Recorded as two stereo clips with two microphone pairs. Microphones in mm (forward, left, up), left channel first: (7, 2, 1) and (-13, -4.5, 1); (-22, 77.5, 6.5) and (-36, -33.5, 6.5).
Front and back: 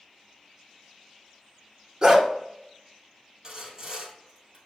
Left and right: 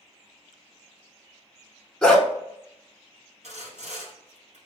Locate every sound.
2.0 s a dog barking: 160° left, 0.7 m
3.4 s sawing: 105° right, 1.7 m